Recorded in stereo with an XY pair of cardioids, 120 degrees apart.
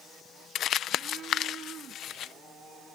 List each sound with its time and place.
0.6 s crumpling: 60° left